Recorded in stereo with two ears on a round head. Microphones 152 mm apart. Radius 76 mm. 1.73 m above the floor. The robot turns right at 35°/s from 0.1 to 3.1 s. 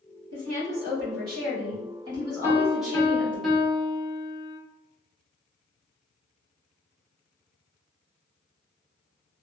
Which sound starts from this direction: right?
A woman speaking, at 0.3 s.